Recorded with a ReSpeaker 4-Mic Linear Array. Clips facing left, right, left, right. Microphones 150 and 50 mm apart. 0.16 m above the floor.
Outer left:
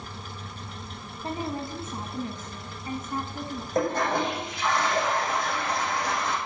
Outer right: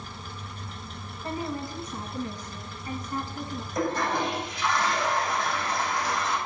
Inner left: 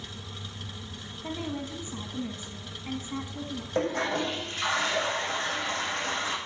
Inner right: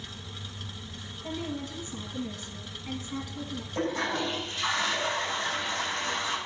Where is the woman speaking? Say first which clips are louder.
Outer left 1 dB, inner left 1 dB; 25° left (ahead or behind), 1.7 m.